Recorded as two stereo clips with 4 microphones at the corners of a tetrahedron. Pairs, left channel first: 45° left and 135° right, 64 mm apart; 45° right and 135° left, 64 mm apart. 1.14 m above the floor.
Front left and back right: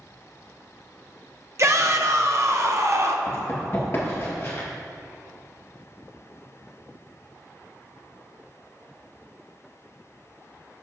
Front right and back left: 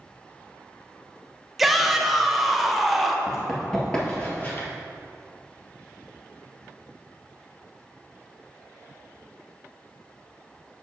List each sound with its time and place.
1.6 s a shout: 135° right, 0.6 m
3.3 s running footsteps: 60° left, 1.5 m; by 4.7 s straight ahead, 1.9 m